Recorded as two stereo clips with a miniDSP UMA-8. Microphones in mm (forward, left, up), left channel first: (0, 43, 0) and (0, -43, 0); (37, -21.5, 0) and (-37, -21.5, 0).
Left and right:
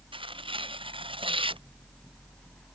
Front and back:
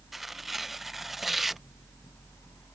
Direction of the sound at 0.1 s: 90° right.